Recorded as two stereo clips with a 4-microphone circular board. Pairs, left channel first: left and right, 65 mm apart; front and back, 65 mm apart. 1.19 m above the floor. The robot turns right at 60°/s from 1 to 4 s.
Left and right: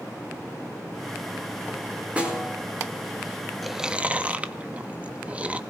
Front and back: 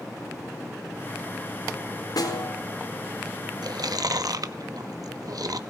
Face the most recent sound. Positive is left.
turn(degrees=-160)